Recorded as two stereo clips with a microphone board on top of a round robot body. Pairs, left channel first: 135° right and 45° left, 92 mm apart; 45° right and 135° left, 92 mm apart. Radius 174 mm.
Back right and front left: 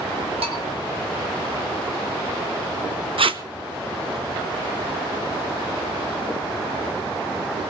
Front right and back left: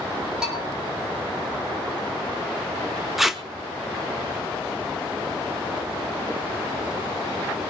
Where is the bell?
55° left, 5.5 m.